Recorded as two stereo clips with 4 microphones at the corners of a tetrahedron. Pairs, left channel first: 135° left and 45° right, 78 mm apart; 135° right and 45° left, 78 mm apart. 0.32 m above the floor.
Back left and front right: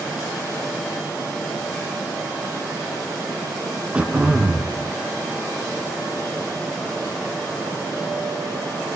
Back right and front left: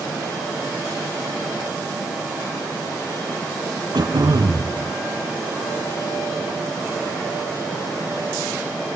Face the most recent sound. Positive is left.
turn(degrees=30)